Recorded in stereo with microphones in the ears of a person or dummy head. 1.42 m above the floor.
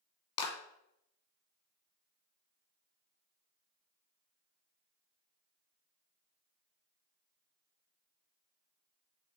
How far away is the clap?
About 1.6 m.